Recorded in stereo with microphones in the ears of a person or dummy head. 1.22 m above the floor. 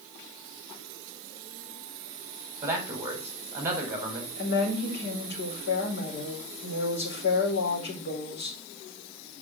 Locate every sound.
2.6 s a man speaking: 15° right (ahead or behind), 5 m
4.4 s a woman speaking: 60° left (ahead or behind), 4.5 m